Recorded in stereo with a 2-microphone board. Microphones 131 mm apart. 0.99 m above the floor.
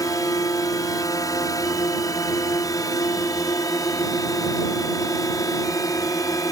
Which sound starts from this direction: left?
A drone, at 0.0 s.